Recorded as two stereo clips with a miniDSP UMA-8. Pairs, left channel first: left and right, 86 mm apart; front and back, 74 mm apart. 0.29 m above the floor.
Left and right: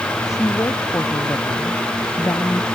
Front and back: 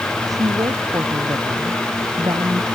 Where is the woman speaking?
145° left.